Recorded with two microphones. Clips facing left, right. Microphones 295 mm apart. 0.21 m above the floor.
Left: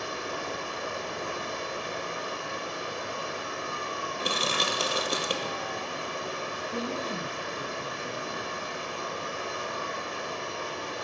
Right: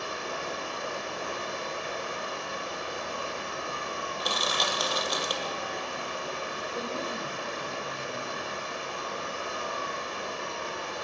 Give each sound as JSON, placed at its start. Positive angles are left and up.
{"t": 0.0, "sound": "running water", "side_deg": 35, "distance_m": 4.5}
{"t": 4.2, "sound": "crushing", "side_deg": 35, "distance_m": 1.2}
{"t": 6.7, "sound": "a woman speaking", "side_deg": 60, "distance_m": 5.5}